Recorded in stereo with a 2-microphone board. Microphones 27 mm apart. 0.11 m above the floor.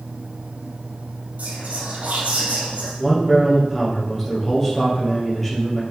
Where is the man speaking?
5° left (ahead or behind), 3 m.